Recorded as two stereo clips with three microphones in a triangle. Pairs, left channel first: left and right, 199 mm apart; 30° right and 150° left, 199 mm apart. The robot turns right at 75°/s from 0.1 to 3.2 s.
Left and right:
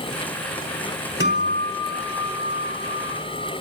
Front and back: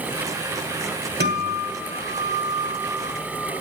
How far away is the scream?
I don't hear a scream.